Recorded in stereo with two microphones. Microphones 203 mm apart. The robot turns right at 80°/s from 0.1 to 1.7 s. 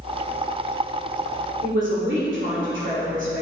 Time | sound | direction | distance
1.6 | a man speaking | 75° right (ahead or behind) | 2.5 m